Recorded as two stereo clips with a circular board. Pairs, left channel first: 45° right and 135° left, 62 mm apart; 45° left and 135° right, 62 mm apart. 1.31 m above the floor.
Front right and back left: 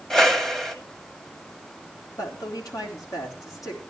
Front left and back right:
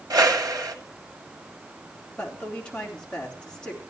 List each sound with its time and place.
0.1 s a whoosh: 125° right, 1.6 m
2.2 s a woman speaking: 30° right, 3.5 m